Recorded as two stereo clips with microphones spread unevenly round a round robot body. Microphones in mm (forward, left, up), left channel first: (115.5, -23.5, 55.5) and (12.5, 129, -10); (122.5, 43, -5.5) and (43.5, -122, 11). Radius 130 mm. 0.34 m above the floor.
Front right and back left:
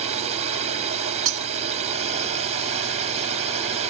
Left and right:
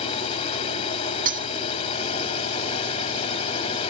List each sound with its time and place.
0.0 s a drone: 120° left
1.2 s breaking glass: straight behind